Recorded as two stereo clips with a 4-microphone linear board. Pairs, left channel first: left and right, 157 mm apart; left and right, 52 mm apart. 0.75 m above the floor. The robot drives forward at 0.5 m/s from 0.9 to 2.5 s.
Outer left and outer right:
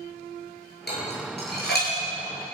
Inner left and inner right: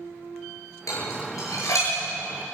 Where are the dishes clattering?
90° left, 9.5 m; by 1.9 s 85° left, 9.5 m.